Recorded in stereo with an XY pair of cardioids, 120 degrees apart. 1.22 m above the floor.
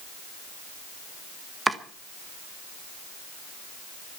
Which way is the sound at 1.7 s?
15° right.